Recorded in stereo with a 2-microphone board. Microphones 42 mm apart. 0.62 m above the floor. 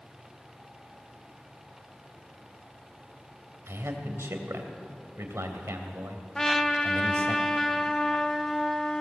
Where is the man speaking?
75° right (ahead or behind), 2.5 m.